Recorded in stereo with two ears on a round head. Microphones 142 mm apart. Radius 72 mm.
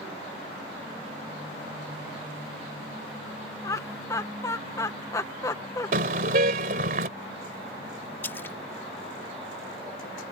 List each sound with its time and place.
3.6 s laughter: 20° left (ahead or behind)
5.9 s a car horn: 55° right (ahead or behind)
8.2 s a splash: 15° left (ahead or behind)